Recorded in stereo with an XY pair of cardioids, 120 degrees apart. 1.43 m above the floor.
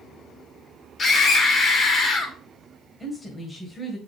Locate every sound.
1.0 s a scream: 40° left, 2.5 m
3.0 s a woman speaking: 15° left, 1.9 m